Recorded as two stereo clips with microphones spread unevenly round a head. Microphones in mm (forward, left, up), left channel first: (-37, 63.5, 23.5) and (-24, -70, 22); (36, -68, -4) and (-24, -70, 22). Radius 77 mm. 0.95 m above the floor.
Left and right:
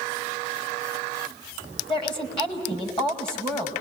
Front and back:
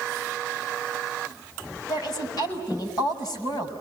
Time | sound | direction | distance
1.9 | a woman speaking | 35° left | 6 m